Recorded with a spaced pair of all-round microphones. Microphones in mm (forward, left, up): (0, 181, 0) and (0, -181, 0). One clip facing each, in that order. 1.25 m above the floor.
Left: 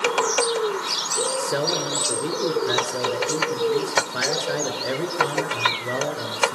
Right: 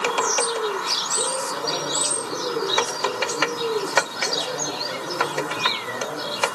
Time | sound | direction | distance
1.4 | a man speaking | 85° left | 5 m